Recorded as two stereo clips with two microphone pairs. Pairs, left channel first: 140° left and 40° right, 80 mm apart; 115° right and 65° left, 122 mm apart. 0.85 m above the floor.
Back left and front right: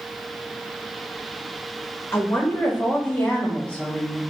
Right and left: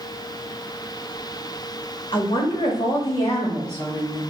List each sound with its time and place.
2.1 s a woman speaking: 155° right, 1.0 m; by 4.2 s 140° right, 1.9 m